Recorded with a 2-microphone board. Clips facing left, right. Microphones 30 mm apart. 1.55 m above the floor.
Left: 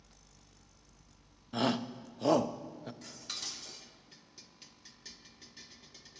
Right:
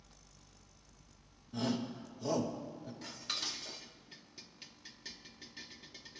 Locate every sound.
1.5 s a shout: 65° left (ahead or behind), 0.6 m
3.0 s dishes clattering: 15° right (ahead or behind), 0.8 m